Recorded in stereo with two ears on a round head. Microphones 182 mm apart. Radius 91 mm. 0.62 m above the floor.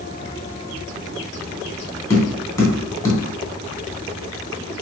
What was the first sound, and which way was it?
Tapping, 15° left (ahead or behind).